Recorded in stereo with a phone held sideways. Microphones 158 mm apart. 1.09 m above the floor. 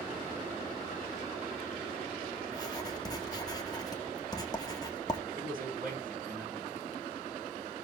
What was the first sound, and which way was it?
Writing, 25° left (ahead or behind).